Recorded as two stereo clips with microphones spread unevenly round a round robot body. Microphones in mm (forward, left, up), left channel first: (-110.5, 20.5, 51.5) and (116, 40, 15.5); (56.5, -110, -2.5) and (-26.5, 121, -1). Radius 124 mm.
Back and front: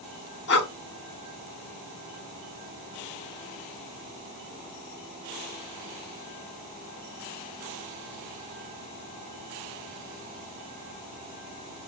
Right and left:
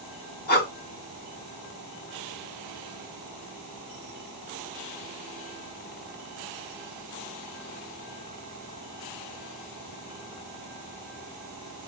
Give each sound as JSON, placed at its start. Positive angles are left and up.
{"t": 0.5, "sound": "breathing", "azimuth_deg": -125, "distance_m": 0.6}